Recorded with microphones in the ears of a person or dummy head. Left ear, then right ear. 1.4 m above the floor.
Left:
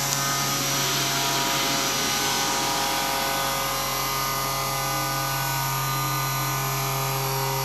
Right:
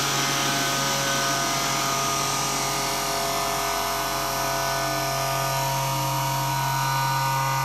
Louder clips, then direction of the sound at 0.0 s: Right 2 dB; 25° right (ahead or behind).